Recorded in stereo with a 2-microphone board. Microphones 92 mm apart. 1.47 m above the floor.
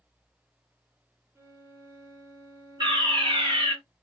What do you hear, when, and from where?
1.4 s a violin: 30° right (ahead or behind), 1.0 m
2.8 s a fire alarm: 60° right (ahead or behind), 2.5 m